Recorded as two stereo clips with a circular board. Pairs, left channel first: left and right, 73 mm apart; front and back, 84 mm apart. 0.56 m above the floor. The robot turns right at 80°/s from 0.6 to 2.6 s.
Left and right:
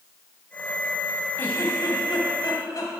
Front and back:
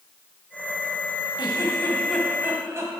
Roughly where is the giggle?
Ahead left.